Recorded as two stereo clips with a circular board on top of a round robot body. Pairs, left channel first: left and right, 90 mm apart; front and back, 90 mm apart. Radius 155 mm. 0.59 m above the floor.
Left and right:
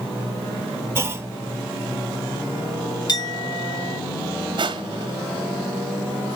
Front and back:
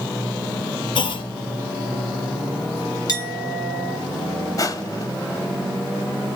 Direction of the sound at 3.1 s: 45° left.